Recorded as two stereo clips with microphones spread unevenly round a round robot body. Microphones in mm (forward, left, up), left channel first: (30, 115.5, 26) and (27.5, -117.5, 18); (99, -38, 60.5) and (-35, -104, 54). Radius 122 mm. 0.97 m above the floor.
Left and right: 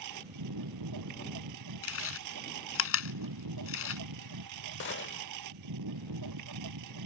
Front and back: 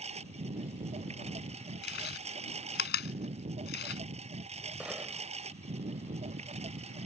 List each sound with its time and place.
0.0 s a lawn mower: 110° right
1.8 s chewing: 60° left
4.8 s a gunshot: 120° left